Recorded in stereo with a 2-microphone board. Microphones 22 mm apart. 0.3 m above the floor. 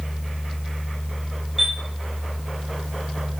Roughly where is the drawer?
I don't hear a drawer.